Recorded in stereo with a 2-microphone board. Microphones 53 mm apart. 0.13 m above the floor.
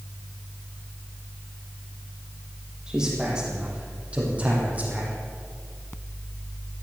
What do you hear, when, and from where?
2.9 s a man speaking: 15° right (ahead or behind), 5.5 m; by 5.1 s 30° right (ahead or behind), 5.5 m